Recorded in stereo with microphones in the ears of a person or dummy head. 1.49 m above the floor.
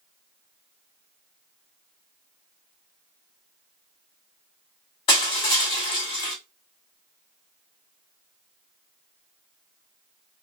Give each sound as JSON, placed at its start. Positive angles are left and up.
{"t": 5.1, "sound": "crushing", "side_deg": 30, "distance_m": 1.3}